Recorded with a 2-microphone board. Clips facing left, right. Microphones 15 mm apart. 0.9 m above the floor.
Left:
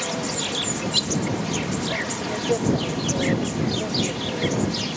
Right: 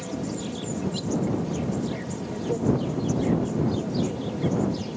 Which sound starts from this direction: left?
An insect, at 0.0 s.